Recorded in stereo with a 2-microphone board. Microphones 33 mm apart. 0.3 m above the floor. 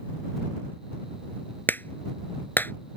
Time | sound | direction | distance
1.7 | a clap | 75° left (ahead or behind) | ?